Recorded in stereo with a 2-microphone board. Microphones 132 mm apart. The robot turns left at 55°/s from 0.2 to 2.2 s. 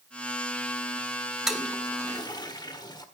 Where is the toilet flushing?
5° right (ahead or behind), 1.5 m; by 3.0 s 30° left (ahead or behind), 1.5 m.